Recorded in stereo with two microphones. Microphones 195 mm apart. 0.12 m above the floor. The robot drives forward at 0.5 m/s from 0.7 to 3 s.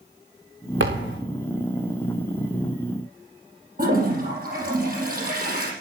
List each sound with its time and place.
0.8 s a thud: 75° right (ahead or behind), 3.5 m
3.8 s a toilet flushing: 50° right (ahead or behind), 4 m